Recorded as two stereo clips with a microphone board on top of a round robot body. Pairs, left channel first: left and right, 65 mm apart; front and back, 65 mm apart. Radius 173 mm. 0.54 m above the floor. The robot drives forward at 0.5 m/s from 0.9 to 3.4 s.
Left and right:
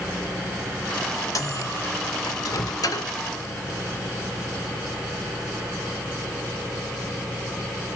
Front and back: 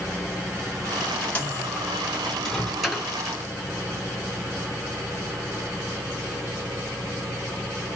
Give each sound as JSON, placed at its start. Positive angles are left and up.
{"t": 1.4, "sound": "a microwave", "azimuth_deg": 70, "distance_m": 1.8}